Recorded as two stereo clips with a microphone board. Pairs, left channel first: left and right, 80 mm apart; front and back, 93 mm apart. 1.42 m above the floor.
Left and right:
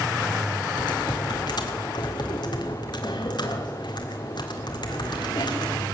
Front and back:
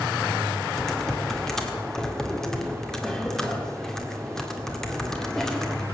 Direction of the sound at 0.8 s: 85° left.